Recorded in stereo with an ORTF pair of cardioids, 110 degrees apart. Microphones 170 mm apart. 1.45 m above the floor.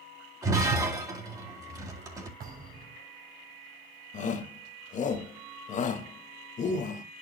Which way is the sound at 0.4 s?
20° right.